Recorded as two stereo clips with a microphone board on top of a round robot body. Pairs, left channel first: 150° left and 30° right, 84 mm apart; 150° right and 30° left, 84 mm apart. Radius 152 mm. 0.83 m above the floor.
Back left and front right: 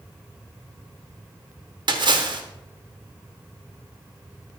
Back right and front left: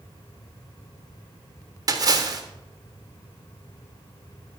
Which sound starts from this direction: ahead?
A splash, at 1.9 s.